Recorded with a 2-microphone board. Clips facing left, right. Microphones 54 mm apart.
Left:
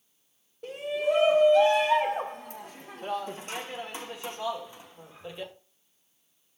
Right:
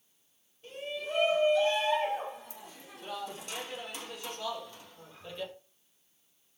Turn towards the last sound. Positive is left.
turn(degrees=15)  # may be behind; listen again after turning